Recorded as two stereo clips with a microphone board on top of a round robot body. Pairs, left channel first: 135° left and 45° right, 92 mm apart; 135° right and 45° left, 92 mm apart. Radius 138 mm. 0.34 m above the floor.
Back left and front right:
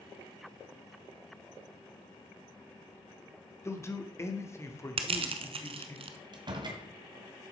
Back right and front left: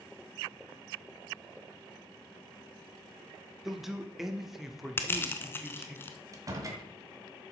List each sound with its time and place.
3.6 s a man speaking: 130° left, 1.5 m
5.0 s crushing: 65° right, 0.7 m
6.3 s a door slam: 5° right, 1.9 m